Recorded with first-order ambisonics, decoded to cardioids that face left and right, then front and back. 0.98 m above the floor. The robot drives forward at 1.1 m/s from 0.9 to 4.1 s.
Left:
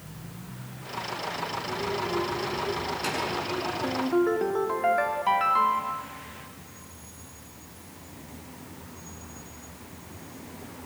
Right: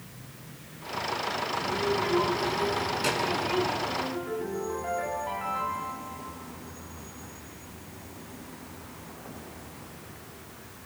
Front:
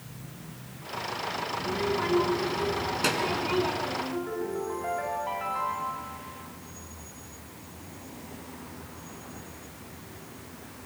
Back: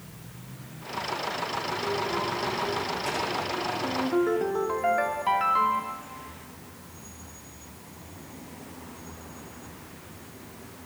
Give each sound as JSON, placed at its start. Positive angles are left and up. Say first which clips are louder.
{"t": 1.6, "sound": "a child speaking", "louder": "right 4 dB, front 2 dB", "azimuth_deg": -5, "distance_m": 8.5}
{"t": 3.8, "sound": "a ringtone", "louder": "left 6 dB, back 6 dB", "azimuth_deg": 120, "distance_m": 1.4}